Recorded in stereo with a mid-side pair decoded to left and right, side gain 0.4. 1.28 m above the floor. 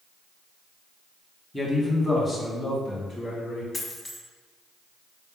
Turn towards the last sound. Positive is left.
turn(degrees=35)